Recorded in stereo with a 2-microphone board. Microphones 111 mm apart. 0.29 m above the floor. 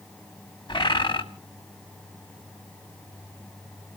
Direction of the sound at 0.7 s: 45° left (ahead or behind).